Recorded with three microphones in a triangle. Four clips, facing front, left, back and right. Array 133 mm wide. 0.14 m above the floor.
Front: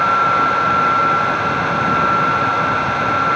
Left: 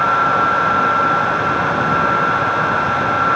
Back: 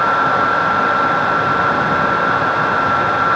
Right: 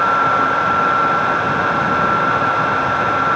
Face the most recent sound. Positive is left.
No sound to turn to.